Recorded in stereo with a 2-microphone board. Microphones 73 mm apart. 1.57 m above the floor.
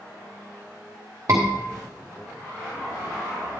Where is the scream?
45° right (ahead or behind), 1.3 m.